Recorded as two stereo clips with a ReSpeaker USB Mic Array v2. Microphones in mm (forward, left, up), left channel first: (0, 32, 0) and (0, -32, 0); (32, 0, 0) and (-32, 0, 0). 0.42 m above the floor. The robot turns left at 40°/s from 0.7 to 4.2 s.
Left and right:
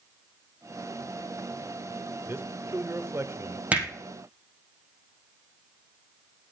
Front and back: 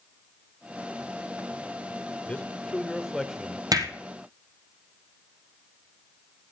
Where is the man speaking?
60° right, 1.1 m; by 3.6 s 115° right, 1.1 m.